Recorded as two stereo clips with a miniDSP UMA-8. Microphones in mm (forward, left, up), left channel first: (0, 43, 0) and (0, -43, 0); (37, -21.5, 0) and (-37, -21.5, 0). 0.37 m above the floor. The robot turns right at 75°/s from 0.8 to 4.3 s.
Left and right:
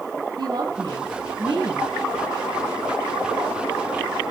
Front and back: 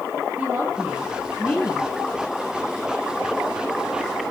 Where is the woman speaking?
110° right, 2 m; by 1.9 s 30° right, 2 m.